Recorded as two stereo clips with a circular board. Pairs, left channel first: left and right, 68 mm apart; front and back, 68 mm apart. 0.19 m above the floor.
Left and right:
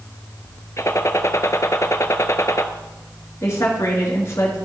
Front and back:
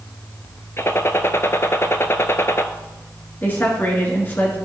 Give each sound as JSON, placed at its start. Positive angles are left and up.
{"t": 0.8, "sound": "a gunshot", "azimuth_deg": 50, "distance_m": 0.6}
{"t": 3.4, "sound": "a woman speaking", "azimuth_deg": 55, "distance_m": 2.5}